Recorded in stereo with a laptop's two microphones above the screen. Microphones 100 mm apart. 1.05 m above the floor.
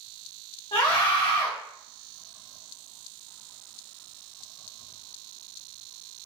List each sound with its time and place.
0.7 s a scream: 60° left (ahead or behind), 2.0 m